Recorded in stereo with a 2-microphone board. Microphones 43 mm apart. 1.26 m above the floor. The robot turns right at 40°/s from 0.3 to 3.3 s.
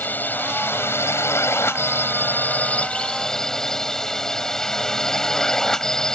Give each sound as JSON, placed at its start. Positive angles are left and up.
{"t": 0.0, "sound": "a drone", "azimuth_deg": 45}